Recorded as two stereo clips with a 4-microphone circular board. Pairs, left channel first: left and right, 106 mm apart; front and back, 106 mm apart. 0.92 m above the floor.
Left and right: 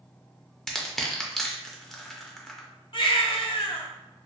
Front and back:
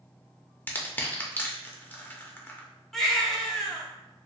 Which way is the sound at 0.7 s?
10° left.